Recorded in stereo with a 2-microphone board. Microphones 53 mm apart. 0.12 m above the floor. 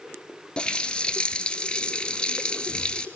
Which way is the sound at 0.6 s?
20° left (ahead or behind).